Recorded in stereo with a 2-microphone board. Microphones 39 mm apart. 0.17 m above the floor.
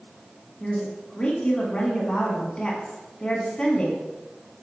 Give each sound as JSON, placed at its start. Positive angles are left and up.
{"t": 0.6, "sound": "a woman speaking", "side_deg": 25, "distance_m": 1.3}